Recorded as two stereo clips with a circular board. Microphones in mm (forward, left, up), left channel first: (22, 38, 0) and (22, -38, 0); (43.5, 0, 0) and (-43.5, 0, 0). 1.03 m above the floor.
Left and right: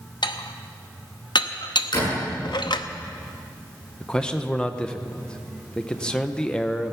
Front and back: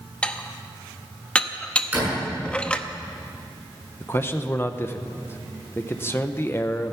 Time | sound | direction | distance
0.2 | dishes clattering | 75° left | 0.8 m
1.9 | a door slam | 105° left | 7 m
4.0 | a man speaking | 20° left | 0.8 m